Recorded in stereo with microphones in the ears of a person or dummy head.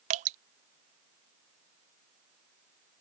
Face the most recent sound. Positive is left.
turn(degrees=-40)  # may be behind; listen again after turning